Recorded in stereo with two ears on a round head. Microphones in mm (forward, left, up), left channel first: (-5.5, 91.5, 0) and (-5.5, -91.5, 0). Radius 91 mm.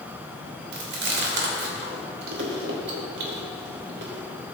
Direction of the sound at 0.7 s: 60° right (ahead or behind).